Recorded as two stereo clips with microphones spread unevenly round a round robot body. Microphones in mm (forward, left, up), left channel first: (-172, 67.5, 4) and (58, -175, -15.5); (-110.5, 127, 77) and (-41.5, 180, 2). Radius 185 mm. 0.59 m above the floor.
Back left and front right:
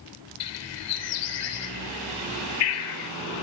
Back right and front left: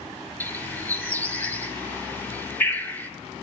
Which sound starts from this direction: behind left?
A bird, at 0.4 s.